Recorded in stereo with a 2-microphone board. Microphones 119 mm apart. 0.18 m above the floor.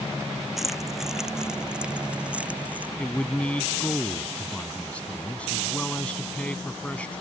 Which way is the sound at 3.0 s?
10° left (ahead or behind).